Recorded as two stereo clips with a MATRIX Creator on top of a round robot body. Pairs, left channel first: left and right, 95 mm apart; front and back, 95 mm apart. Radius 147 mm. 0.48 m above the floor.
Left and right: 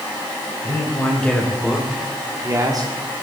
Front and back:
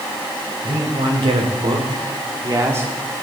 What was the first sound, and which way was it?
A man speaking, 160° left.